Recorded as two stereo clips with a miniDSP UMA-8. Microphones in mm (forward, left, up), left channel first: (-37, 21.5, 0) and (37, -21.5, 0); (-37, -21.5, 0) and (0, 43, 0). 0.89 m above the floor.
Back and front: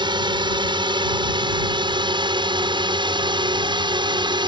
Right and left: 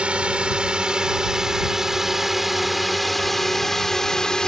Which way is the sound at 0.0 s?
15° right.